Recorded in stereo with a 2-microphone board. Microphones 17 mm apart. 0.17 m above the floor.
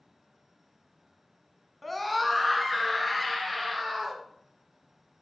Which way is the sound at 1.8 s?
5° left (ahead or behind).